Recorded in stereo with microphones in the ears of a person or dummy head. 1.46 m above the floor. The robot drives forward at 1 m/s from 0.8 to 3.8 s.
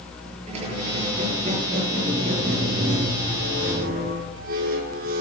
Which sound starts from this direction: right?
A squeak, at 0.5 s.